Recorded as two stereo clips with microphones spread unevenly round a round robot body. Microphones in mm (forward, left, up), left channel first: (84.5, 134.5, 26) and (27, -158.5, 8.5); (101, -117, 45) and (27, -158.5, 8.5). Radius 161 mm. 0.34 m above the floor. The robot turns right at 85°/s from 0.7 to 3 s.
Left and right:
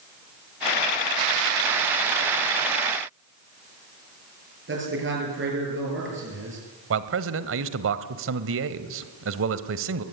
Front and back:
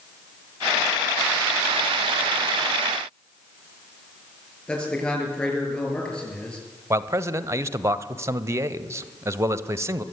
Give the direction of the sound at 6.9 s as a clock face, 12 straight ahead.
4 o'clock.